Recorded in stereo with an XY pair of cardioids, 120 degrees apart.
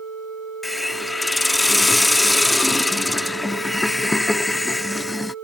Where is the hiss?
10° left.